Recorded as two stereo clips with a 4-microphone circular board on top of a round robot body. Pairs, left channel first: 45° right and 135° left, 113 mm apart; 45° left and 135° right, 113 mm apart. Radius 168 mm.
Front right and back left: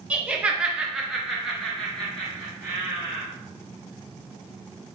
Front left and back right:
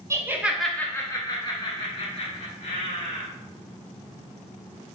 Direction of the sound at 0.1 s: 160° right.